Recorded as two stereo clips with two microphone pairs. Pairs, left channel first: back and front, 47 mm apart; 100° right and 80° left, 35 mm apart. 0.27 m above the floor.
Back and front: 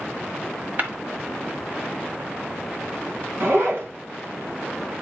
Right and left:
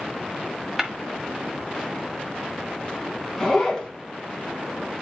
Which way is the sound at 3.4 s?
20° right.